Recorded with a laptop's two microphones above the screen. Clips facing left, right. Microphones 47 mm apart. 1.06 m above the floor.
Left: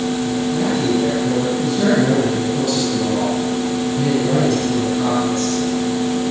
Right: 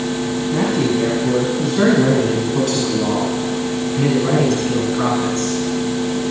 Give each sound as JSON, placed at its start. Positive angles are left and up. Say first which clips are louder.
{"t": 0.5, "sound": "a man speaking", "louder": "right 2 dB", "side_deg": -70, "distance_m": 9.0}